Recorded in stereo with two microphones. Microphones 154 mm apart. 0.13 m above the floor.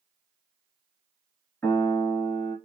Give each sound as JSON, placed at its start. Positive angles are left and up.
{"t": 1.6, "sound": "a piano", "side_deg": 15, "distance_m": 1.8}